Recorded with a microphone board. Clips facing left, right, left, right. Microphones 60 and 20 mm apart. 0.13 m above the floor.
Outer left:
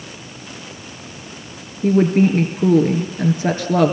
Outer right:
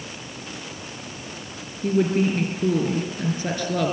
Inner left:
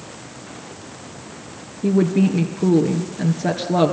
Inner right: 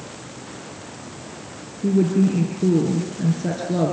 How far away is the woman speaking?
About 2 m.